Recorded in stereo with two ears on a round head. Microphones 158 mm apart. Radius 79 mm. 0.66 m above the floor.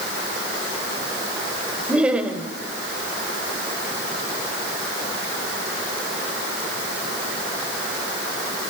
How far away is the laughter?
About 3 m.